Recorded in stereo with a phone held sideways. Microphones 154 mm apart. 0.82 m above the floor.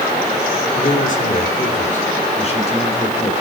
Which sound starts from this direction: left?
A man speaking, at 0.8 s.